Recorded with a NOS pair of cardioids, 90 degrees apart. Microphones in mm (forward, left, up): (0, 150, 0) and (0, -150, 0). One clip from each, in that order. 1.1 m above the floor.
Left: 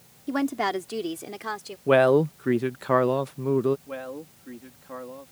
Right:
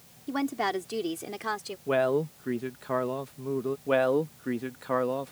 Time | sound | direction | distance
0.3 | a woman speaking | 30° left | ?
1.9 | a man speaking | 40° left | ?
3.9 | a man speaking | 65° right | ?